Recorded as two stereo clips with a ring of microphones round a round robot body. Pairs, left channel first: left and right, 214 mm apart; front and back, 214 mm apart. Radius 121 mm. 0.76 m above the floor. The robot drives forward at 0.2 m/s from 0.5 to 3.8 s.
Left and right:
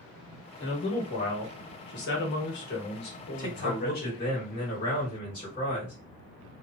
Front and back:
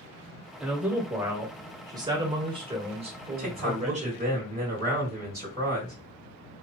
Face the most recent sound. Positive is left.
turn(degrees=150)